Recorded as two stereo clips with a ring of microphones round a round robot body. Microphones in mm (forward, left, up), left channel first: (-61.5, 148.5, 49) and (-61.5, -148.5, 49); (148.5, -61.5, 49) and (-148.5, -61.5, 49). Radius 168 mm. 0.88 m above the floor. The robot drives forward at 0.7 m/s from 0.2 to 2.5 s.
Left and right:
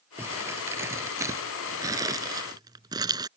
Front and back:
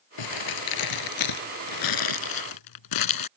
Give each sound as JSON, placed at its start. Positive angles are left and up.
{"t": 0.2, "sound": "crumpling", "azimuth_deg": -5}